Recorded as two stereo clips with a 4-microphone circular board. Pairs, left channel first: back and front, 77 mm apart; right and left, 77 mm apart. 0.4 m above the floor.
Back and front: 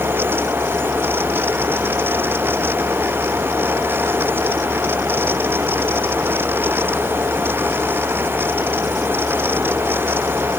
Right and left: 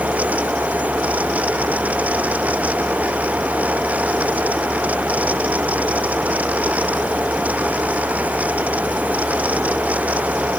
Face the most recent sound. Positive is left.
No sound to turn to.